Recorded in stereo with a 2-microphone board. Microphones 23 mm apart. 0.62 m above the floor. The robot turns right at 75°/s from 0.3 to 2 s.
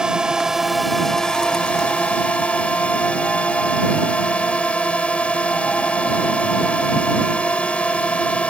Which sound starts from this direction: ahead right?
A drone, at 0.0 s.